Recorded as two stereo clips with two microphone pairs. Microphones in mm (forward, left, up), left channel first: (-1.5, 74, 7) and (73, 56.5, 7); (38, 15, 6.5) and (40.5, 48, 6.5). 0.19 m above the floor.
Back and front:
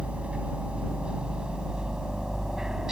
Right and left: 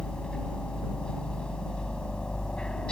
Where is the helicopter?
70° right; by 2.9 s 85° right.